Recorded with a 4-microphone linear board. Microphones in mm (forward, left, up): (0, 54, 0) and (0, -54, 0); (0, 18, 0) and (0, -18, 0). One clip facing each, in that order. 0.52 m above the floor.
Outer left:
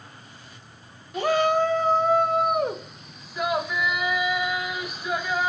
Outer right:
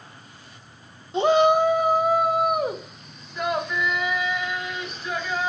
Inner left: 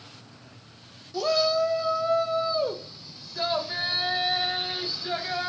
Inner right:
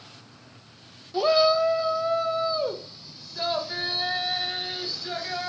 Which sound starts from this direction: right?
A shout, at 1.1 s.